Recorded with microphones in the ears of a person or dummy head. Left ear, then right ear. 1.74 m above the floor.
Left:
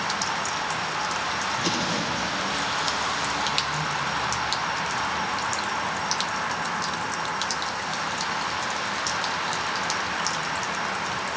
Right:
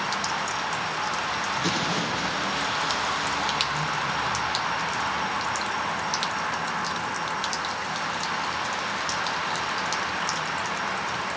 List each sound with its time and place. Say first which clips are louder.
1.6 s an explosion: even; 15° right (ahead or behind), 4.5 m